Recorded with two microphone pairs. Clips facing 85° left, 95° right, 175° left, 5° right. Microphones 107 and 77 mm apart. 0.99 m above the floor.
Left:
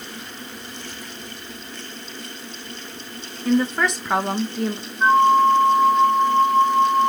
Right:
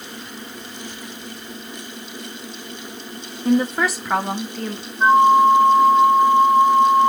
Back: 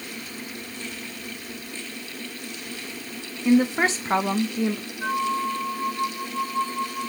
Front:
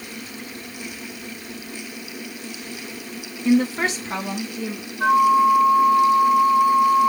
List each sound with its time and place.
3.5 s a woman speaking: 90° right, 0.5 m; by 4.9 s 160° left, 1.1 m
5.0 s a flute: 30° right, 0.6 m